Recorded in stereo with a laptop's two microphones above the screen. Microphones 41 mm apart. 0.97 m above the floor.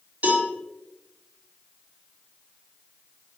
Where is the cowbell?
40° right (ahead or behind), 3 m.